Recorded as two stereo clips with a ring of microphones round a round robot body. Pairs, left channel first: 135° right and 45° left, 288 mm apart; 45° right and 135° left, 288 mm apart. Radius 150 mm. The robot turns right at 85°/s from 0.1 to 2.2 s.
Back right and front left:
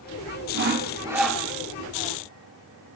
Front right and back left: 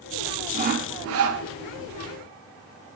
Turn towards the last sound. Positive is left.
turn(degrees=-145)